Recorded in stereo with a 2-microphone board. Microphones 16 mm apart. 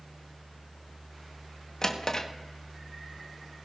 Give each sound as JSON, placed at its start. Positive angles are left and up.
{"t": 1.8, "sound": "a drawer", "side_deg": 45, "distance_m": 1.1}